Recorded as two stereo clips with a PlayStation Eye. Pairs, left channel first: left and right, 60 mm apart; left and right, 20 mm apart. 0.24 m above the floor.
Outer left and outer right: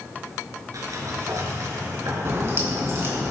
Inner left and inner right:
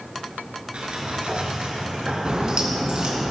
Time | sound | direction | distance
0.7 | a sliding door | 75° right (ahead or behind) | 2.5 m
2.2 | a crack | 50° right (ahead or behind) | 2.5 m